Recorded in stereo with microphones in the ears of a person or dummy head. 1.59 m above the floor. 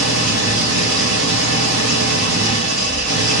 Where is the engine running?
75° right (ahead or behind), 1.5 m.